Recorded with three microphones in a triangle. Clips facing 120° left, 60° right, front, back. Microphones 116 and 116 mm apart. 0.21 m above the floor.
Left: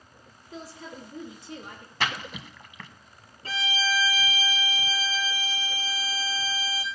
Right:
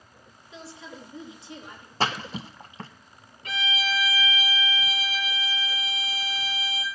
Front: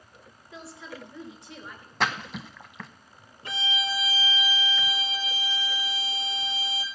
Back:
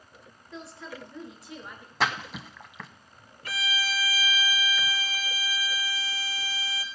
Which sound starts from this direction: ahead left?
A violin, at 3.5 s.